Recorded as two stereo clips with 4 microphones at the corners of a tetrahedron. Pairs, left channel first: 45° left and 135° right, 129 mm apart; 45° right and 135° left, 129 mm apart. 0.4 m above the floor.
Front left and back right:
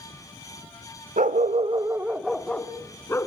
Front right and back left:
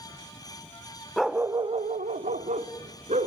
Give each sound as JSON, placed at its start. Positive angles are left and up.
{"t": 1.2, "sound": "a dog barking", "azimuth_deg": -135, "distance_m": 0.7}